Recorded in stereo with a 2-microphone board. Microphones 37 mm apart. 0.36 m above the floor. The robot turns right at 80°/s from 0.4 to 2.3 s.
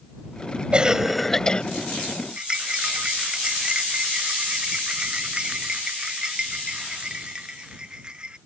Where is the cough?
40° right; by 1.6 s 35° left.